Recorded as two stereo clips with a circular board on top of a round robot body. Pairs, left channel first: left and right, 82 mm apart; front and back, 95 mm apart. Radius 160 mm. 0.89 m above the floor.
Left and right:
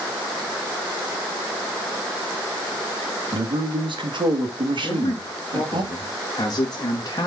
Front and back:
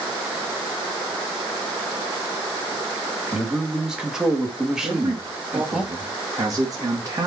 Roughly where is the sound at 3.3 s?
Right.